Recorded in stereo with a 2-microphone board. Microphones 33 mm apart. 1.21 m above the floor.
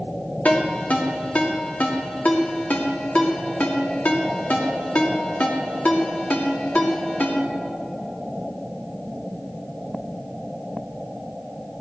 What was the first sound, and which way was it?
A ringtone, 55° left (ahead or behind).